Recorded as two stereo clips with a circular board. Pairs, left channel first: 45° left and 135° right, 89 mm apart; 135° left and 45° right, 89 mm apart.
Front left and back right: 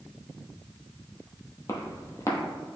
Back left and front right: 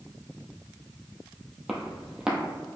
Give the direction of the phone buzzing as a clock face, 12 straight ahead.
I don't hear a phone buzzing.